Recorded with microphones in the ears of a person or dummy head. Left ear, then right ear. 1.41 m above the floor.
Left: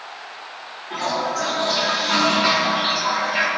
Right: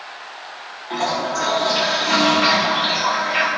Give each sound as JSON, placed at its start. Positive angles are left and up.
{"t": 0.9, "sound": "a toilet flushing", "side_deg": -30, "distance_m": 1.5}